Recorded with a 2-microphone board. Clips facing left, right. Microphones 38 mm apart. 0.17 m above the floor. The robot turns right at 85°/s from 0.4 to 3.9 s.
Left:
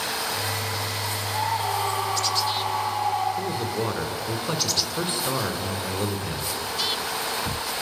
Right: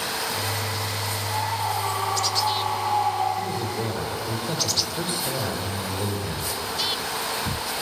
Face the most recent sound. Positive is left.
turn(degrees=120)